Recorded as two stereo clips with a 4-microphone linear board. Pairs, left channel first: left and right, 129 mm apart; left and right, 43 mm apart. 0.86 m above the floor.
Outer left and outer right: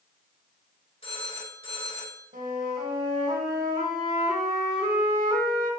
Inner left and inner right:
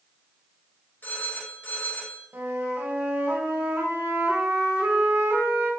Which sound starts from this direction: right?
A flute, at 2.3 s.